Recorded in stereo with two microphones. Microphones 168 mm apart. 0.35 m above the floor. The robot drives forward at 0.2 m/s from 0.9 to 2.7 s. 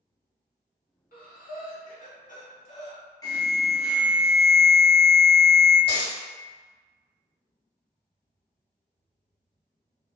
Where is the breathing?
65° left (ahead or behind), 0.6 m; by 3.0 s 40° left (ahead or behind), 0.8 m.